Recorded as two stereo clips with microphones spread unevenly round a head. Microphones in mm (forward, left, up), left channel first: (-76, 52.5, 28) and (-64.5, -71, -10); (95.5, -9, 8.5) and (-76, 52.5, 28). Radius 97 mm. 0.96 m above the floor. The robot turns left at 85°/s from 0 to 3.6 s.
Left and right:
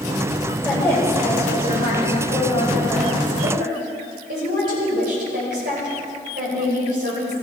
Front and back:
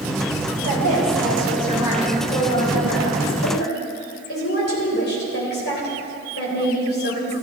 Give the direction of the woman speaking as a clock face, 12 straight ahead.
6 o'clock.